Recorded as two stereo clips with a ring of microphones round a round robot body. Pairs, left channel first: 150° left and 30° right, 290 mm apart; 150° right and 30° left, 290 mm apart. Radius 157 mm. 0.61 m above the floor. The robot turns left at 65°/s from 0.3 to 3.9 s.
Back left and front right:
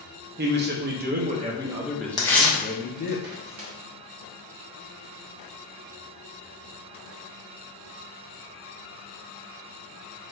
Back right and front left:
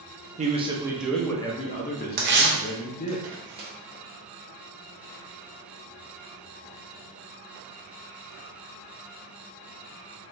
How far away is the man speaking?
About 0.6 m.